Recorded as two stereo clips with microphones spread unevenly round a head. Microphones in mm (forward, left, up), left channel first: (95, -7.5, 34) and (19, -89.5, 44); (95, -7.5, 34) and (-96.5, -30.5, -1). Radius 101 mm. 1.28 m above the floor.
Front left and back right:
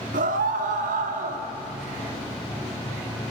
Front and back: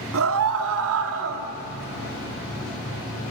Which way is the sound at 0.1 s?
160° right.